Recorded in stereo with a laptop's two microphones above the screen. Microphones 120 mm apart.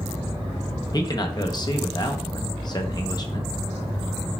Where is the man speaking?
35° left (ahead or behind), 0.7 m.